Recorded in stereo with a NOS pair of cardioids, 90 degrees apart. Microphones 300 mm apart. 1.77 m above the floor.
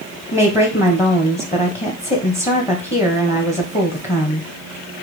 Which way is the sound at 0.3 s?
20° left.